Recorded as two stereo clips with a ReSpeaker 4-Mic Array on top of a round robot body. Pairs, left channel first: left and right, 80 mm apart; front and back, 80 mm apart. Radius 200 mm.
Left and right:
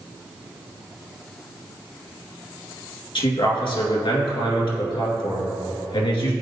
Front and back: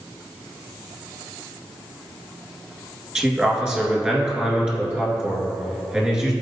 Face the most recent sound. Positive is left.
turn(degrees=105)